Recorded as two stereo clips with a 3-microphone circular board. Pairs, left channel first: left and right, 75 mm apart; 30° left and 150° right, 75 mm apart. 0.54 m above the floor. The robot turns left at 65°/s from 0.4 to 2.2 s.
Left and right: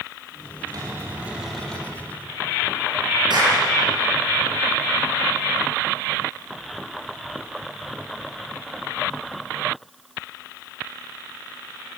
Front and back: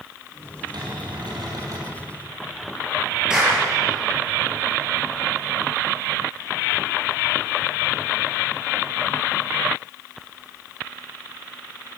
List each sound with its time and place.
0.7 s a cupboard door: 125° right, 6 m; by 1.9 s 155° left, 6 m
3.3 s a clap: 70° right, 8.5 m